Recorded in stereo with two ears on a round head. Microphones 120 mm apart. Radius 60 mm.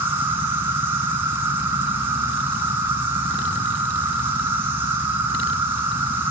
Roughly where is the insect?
Centre.